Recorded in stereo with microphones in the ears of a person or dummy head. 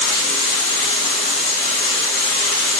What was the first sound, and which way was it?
Running water, 65° left (ahead or behind).